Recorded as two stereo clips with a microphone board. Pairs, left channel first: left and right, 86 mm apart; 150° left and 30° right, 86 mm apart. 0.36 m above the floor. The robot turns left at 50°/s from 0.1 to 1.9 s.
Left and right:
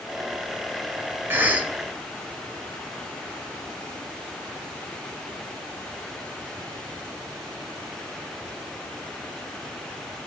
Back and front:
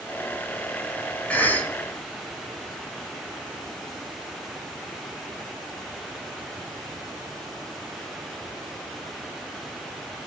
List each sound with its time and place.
1.3 s a cough: 140° right, 2.0 m; by 1.7 s 165° right, 2.0 m